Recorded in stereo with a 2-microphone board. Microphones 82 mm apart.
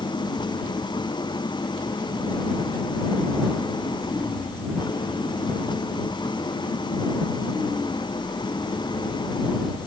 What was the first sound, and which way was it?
An engine running, 65° left (ahead or behind).